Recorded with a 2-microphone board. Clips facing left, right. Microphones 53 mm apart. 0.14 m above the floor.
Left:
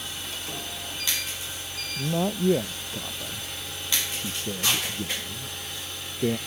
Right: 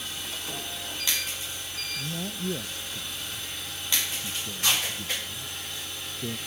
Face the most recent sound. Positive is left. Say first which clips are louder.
# left 11 dB
turn(degrees=65)  # may be behind; listen again after turning